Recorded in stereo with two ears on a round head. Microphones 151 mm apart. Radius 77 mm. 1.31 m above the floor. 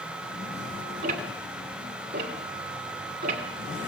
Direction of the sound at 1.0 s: 50° right (ahead or behind).